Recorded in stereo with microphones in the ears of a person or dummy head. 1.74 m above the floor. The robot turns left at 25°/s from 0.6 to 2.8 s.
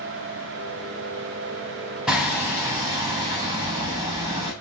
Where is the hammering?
Centre (ahead or behind), 1.3 m; by 4.5 s 15° right (ahead or behind), 1.3 m.